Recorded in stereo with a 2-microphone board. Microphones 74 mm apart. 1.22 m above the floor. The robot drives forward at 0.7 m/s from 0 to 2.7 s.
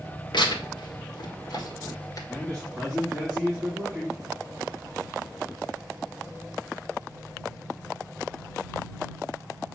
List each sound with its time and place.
0.3 s tearing paper: 80° left, 1.6 m; by 2.2 s 50° left (ahead or behind), 2 m
2.3 s a man speaking: 10° left (ahead or behind), 3 m